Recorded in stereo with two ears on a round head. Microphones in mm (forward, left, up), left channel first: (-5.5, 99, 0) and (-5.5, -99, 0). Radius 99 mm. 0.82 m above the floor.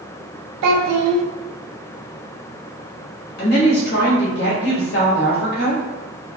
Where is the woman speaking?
50° left (ahead or behind), 1.2 m.